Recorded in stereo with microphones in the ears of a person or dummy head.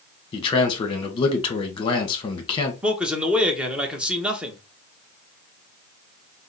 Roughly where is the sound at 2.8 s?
Centre.